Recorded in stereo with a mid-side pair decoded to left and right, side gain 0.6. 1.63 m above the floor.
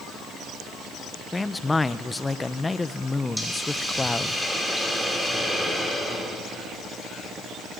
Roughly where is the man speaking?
Ahead.